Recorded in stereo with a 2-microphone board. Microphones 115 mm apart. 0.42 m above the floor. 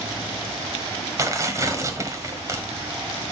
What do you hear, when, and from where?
1.2 s tearing paper: 25° right (ahead or behind), 1.3 m